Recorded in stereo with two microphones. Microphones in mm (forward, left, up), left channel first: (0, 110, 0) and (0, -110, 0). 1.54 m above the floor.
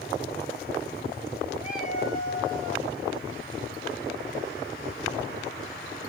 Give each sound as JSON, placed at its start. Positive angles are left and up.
{"t": 1.6, "sound": "a cat meowing", "side_deg": -5, "distance_m": 4.0}